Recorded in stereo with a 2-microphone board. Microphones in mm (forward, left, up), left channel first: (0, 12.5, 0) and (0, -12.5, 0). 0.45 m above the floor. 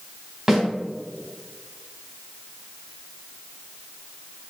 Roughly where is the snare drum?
Centre.